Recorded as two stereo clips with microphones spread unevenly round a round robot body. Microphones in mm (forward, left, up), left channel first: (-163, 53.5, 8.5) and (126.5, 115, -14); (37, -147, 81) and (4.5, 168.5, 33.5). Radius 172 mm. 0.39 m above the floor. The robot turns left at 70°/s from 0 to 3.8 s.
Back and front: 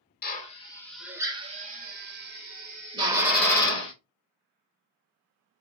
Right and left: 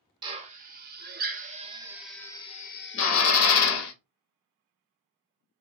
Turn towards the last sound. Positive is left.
turn(degrees=-100)